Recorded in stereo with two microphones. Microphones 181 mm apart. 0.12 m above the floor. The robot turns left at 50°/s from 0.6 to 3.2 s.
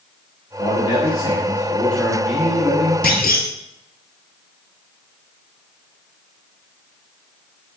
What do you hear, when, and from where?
0.6 s a man speaking: 75° left, 1.5 m; by 2.9 s 40° right, 1.5 m
3.0 s a clunk: 65° left (ahead or behind), 0.6 m